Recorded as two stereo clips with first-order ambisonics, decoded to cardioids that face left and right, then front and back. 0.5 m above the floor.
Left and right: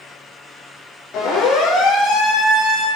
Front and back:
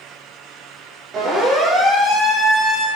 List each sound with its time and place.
1.1 s a siren: 125° left, 7 m; by 2.9 s 115° left, 8.5 m